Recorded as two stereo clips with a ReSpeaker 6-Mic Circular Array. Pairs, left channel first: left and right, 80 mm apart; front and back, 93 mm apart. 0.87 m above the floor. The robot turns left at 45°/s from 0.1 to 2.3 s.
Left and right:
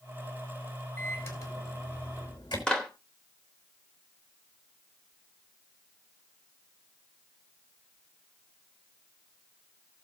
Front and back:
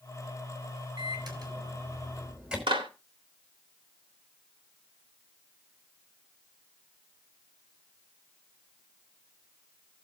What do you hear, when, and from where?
1.0 s a microwave: 160° left, 5 m; by 2.6 s 100° left, 5 m
2.7 s a clap: 170° left, 3 m